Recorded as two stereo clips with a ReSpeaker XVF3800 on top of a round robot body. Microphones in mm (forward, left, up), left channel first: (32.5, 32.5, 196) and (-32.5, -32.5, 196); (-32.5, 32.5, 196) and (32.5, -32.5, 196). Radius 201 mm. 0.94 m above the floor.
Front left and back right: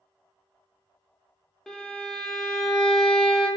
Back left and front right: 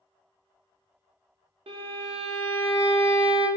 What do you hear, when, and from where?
1.7 s a violin: 40° right, 0.5 m